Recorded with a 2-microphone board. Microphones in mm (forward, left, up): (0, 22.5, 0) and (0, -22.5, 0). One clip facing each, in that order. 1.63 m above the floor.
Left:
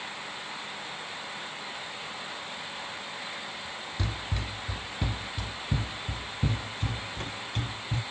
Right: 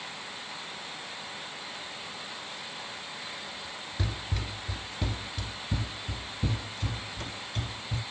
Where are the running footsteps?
Centre (ahead or behind), 1.6 m; by 8.0 s 45° left (ahead or behind), 2.5 m.